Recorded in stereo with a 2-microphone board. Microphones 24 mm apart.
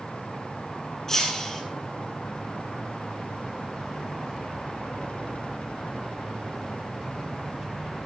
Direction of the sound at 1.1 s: 20° left (ahead or behind).